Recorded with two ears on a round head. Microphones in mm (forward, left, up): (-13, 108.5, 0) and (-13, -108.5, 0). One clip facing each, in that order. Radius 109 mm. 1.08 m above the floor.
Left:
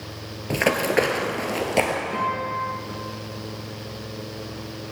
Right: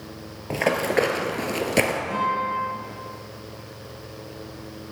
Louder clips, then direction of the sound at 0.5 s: Left 1 dB; 15° left (ahead or behind).